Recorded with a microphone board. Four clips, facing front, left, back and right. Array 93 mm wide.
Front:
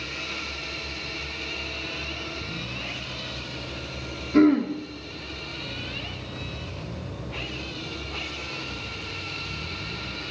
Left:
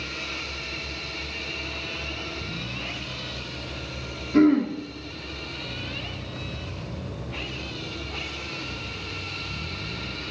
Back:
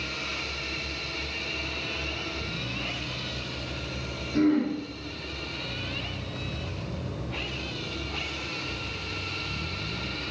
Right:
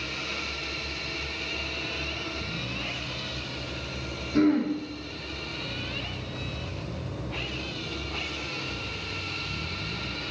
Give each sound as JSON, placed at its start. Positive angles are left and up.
{"t": 4.3, "sound": "throat clearing", "azimuth_deg": 45, "distance_m": 2.5}